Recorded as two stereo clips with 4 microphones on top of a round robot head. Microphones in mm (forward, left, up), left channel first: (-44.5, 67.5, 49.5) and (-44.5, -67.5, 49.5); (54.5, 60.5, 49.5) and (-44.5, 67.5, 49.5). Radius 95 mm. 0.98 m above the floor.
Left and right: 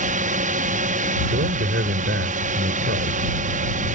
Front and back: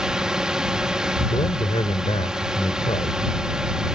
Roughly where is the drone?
Right.